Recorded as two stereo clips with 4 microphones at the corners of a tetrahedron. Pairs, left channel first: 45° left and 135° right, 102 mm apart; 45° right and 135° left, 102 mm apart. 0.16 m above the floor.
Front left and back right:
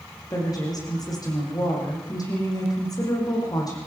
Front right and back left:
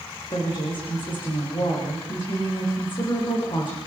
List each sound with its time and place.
0.3 s a woman speaking: 10° right, 8 m